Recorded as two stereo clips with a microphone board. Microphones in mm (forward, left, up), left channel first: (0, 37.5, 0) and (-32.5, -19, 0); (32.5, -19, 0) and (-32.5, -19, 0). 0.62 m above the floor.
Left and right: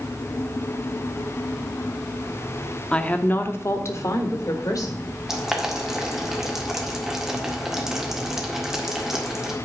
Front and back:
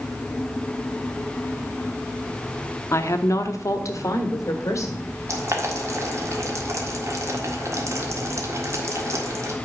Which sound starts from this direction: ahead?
A woman speaking, at 2.9 s.